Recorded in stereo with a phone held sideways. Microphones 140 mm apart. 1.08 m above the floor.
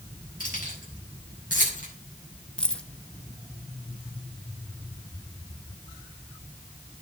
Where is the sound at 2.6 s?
5° left (ahead or behind), 0.8 m.